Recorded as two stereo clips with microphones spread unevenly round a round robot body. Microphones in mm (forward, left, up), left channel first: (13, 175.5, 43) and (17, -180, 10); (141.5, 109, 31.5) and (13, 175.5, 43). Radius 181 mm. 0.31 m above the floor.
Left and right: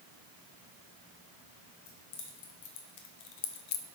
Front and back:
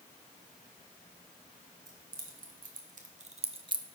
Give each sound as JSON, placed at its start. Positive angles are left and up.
{"t": 1.9, "sound": "keys jangling", "azimuth_deg": 135, "distance_m": 2.0}